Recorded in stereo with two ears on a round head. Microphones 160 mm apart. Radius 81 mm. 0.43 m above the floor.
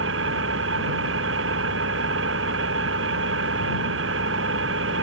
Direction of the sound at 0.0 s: 80° right.